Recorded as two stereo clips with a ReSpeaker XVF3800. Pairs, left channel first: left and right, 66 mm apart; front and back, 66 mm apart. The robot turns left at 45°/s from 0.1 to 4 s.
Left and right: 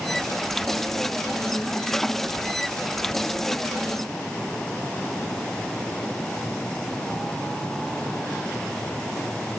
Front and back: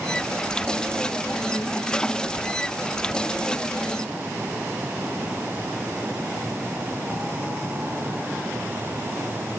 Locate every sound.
Only background noise.